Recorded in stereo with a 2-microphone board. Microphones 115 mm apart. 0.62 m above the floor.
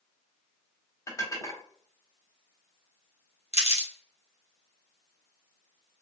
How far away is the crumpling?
About 1.1 m.